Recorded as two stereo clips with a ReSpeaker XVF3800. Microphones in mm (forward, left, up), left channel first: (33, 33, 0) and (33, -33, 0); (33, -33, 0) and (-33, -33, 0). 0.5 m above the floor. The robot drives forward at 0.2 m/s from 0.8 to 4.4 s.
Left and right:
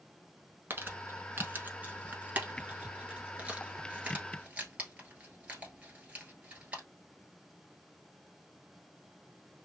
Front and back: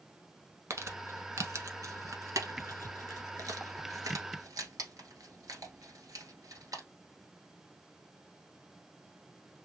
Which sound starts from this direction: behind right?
Crumpling, at 0.7 s.